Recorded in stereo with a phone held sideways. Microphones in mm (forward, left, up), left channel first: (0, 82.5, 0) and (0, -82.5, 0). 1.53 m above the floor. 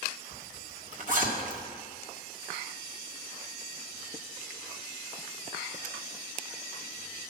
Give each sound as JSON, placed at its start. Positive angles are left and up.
{"t": 0.3, "sound": "a zipper", "side_deg": -55, "distance_m": 1.7}